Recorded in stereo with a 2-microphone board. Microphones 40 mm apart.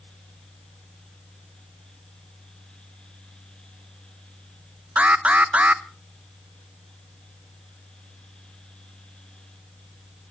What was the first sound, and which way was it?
An alarm, 35° right (ahead or behind).